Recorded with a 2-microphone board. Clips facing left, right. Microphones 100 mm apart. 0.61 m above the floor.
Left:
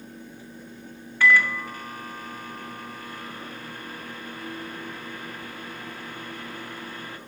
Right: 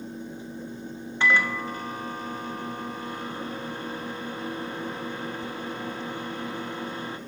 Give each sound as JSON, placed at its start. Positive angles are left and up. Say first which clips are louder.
{"t": 1.2, "sound": "a microwave", "louder": "left 3 dB", "side_deg": -25, "distance_m": 0.6}